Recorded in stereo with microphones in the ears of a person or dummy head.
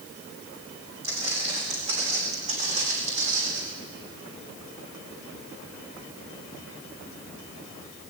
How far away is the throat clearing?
No throat clearing in this recording.